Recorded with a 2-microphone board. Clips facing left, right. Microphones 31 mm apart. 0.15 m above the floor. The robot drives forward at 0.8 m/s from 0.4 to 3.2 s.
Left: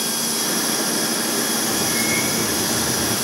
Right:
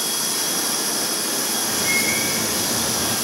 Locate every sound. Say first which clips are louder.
1.7 s a bird: even; 80° right, 8.5 m; by 3.1 s 75° right (ahead or behind), 8.5 m